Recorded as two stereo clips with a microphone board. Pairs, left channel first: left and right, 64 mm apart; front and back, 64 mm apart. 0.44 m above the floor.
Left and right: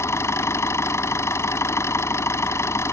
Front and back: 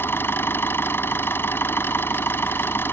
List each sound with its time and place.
0.0 s an engine running: 50° left